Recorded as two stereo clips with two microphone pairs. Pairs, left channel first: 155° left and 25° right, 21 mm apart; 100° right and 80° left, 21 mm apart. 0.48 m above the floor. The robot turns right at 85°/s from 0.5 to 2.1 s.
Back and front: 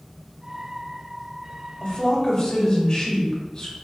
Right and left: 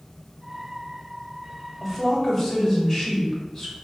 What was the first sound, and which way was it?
A woman speaking, 170° left.